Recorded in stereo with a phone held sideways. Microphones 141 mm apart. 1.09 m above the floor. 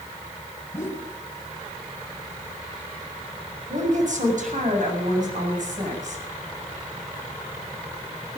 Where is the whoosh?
20° left (ahead or behind), 2.5 m.